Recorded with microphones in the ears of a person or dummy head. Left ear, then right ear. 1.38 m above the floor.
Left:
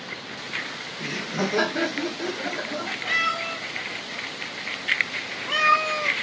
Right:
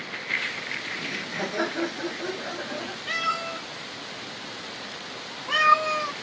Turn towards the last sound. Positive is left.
turn(degrees=0)  # may be behind; listen again after turning